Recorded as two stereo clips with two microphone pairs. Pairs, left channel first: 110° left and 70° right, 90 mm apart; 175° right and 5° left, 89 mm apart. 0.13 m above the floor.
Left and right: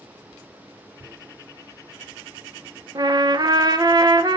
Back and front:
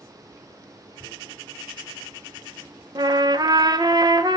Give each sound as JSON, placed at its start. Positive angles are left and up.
{"t": 1.0, "sound": "tearing paper", "azimuth_deg": -130, "distance_m": 0.8}
{"t": 3.0, "sound": "a trumpet", "azimuth_deg": -30, "distance_m": 0.5}